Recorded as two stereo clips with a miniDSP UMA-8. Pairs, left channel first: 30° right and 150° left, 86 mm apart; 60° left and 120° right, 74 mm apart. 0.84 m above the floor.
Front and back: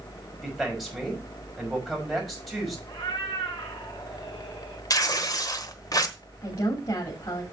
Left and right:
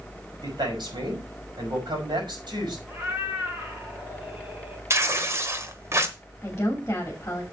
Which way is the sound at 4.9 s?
70° right.